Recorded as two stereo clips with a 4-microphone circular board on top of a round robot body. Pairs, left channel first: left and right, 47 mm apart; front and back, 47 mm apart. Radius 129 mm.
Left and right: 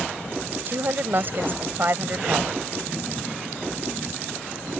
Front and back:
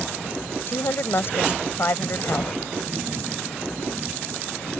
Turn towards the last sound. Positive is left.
turn(degrees=-45)